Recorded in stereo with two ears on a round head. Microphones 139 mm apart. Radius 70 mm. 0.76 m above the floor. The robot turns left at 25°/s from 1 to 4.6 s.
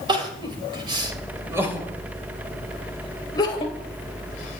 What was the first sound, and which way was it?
Crying, 30° right (ahead or behind).